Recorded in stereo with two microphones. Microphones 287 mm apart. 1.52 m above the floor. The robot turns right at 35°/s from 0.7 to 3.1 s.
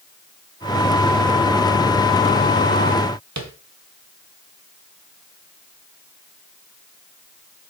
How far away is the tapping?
About 1.1 m.